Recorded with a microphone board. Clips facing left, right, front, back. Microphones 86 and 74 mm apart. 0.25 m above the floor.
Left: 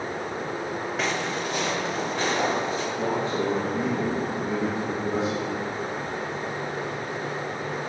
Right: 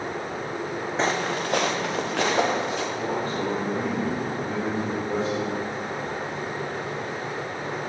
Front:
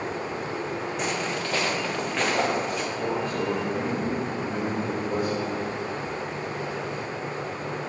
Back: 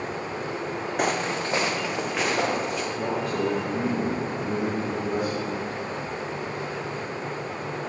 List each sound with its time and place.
1.0 s footsteps: 150° right, 0.8 m; by 2.8 s 90° right, 2.5 m
2.9 s a man speaking: 170° left, 3.5 m